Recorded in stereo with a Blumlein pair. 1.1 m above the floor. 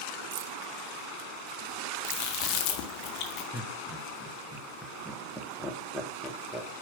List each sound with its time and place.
0.3 s keys jangling: 40° right, 0.8 m
2.0 s chewing: 40° left, 1.5 m
3.5 s laughter: straight ahead, 1.5 m